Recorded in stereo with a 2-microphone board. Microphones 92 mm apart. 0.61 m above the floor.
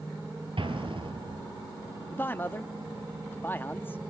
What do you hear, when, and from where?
0.6 s an explosion: 75° right (ahead or behind), 3 m
2.1 s a man speaking: 25° left (ahead or behind), 0.6 m